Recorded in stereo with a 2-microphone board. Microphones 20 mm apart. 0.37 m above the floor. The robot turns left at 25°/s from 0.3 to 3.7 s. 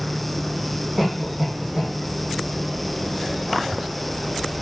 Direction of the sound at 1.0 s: 30° right (ahead or behind).